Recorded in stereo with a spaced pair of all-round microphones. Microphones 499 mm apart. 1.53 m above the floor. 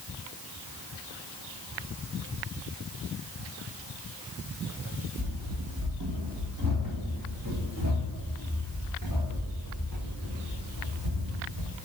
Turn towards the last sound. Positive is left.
turn(degrees=-35)  # may be behind; listen again after turning